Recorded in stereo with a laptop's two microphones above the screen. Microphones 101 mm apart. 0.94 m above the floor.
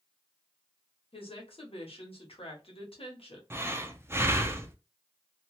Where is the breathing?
25° right (ahead or behind), 0.6 m.